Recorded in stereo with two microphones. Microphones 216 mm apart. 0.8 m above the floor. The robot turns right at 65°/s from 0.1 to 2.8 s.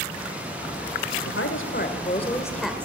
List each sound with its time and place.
1.2 s a woman speaking: 90° left, 2.5 m; by 2.9 s 170° right, 2.5 m